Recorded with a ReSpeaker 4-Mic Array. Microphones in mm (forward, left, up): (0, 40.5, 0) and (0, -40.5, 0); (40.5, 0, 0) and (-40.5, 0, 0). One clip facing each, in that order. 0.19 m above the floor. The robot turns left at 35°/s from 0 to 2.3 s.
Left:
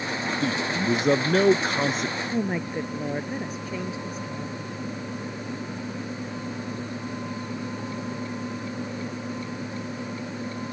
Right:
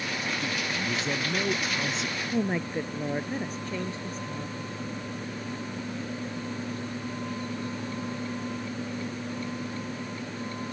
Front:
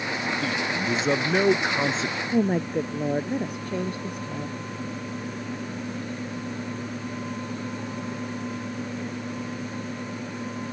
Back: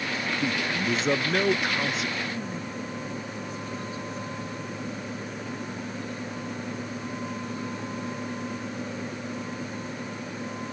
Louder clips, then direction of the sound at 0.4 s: Left 6 dB, front 1 dB; 110° left.